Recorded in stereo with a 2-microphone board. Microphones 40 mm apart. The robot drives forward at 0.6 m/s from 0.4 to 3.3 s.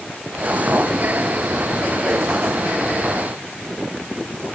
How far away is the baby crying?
I don't hear a baby crying.